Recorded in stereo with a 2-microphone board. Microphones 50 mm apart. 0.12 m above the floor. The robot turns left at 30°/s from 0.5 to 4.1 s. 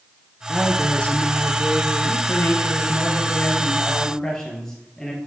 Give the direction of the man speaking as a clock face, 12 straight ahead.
10 o'clock.